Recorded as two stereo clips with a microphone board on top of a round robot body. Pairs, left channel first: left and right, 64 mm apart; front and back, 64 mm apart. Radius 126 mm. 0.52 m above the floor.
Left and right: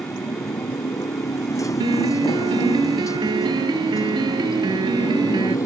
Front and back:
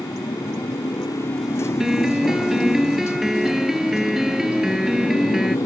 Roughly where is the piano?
Right.